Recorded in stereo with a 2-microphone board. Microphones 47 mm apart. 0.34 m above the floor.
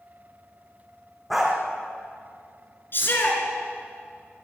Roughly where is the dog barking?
Centre.